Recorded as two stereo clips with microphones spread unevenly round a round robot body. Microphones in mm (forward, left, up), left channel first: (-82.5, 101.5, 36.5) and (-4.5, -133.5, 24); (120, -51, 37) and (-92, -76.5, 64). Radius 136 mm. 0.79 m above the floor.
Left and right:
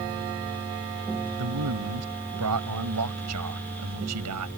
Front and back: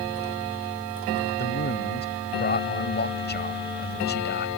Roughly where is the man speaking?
Ahead right.